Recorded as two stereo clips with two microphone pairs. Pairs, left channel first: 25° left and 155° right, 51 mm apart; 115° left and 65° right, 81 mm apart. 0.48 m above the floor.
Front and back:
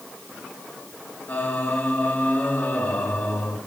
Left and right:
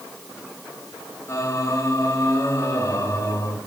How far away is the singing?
About 2 m.